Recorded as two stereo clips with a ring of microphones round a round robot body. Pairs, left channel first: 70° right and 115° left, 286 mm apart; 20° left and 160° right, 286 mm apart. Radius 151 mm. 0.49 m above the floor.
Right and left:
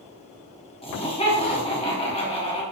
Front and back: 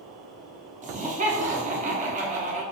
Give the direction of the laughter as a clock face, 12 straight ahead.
4 o'clock.